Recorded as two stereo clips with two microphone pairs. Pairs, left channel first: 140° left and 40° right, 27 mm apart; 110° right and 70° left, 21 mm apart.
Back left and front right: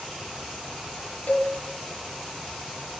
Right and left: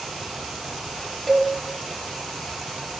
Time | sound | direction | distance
1.3 | a cowbell | 160° left | 5 m